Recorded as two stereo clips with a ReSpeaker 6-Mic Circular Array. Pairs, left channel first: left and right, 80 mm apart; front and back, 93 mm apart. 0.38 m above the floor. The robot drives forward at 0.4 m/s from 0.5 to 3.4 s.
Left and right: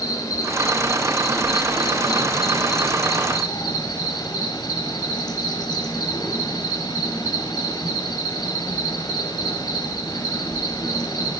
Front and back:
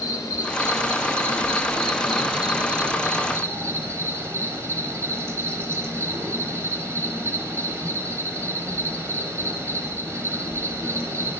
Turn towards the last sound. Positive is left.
turn(degrees=120)